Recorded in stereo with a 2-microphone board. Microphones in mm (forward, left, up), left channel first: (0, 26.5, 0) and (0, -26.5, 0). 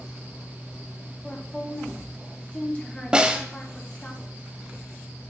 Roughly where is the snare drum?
Centre.